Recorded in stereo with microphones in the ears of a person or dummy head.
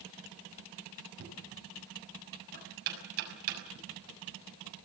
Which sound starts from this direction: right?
Knocking, at 1.2 s.